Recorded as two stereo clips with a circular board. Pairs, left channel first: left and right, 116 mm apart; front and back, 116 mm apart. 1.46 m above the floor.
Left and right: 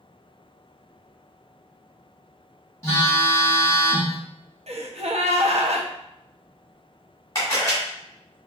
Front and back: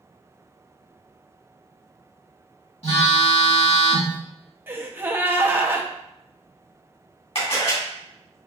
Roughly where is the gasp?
Right.